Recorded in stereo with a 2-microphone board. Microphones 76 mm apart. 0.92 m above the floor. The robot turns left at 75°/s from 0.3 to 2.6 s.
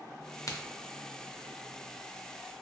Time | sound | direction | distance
0.5 | a crack | 45° left (ahead or behind) | 0.5 m